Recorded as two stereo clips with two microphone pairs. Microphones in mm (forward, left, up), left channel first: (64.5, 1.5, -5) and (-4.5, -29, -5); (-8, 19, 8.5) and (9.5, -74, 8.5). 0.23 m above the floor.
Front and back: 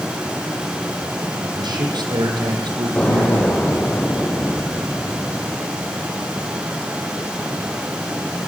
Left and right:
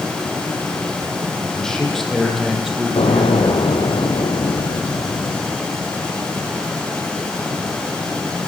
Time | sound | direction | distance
1.4 | a man speaking | 175° right | 8.5 m
3.0 | an explosion | 95° left | 4.5 m